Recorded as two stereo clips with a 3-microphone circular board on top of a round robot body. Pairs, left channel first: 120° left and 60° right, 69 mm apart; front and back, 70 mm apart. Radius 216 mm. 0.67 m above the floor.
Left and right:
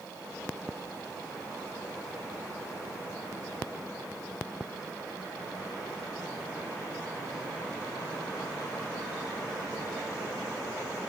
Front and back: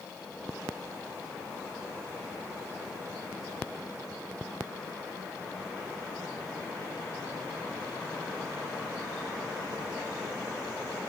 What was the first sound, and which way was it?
Only background noise.